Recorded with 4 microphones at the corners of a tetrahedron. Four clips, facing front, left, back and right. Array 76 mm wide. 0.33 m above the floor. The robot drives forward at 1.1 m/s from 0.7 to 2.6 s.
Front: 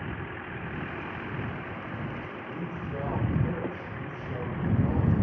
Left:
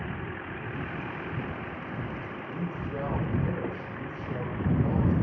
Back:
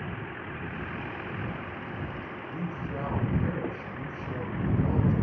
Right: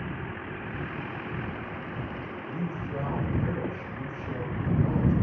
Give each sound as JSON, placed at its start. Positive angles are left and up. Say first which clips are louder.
{"t": 2.5, "sound": "a man speaking", "louder": "right 1 dB, back 1 dB", "azimuth_deg": -135, "distance_m": 3.5}